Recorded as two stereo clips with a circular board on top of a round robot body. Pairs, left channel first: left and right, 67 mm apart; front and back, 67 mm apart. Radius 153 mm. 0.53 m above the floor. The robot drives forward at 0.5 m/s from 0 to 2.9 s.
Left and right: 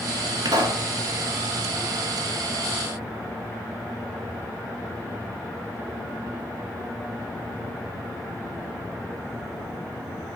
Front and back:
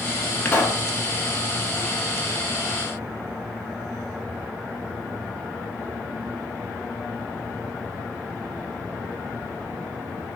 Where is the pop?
70° right, 1.2 m; by 0.9 s 80° right, 1.1 m.